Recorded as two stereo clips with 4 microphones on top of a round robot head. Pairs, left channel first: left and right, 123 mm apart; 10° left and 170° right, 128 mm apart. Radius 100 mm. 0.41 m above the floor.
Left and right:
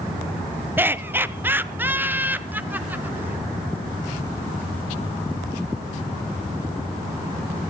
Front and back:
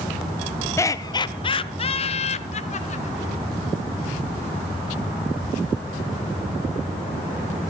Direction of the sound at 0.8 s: 35° right.